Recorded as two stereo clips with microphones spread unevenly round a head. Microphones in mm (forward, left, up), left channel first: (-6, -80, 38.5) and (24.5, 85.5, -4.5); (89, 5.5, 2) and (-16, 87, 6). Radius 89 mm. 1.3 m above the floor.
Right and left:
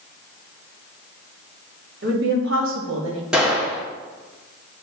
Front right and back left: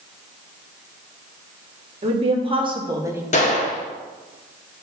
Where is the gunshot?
10° right, 1.4 m.